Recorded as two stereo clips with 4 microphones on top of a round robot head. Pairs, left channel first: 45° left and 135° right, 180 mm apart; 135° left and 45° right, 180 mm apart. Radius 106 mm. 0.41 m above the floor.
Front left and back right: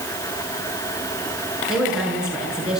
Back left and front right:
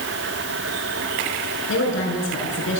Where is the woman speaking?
140° left, 7 m.